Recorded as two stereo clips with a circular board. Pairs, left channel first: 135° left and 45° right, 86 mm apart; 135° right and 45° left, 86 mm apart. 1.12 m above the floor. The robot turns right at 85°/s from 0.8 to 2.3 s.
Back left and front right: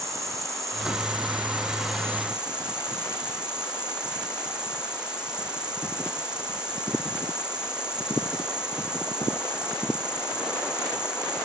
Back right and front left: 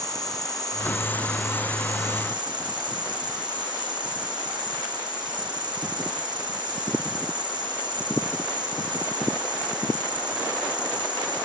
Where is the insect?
95° right, 1.9 m; by 11.5 s 35° left, 1.9 m.